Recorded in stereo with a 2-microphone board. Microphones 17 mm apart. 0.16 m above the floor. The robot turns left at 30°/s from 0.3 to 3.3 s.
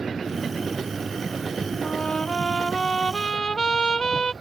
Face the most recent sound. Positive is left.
turn(degrees=55)